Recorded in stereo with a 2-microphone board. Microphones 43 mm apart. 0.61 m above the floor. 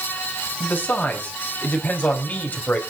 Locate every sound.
0.6 s a man speaking: 45° left (ahead or behind), 5.5 m; by 2.8 s 40° left (ahead or behind), 4 m